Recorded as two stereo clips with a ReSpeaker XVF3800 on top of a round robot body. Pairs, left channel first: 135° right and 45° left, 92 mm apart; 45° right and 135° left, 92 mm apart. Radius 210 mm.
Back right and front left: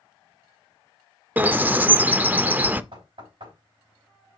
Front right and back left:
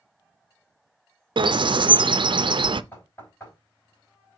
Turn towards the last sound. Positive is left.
turn(degrees=20)